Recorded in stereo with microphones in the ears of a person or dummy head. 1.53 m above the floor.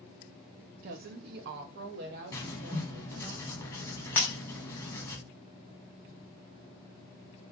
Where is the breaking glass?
15° left (ahead or behind), 0.6 m.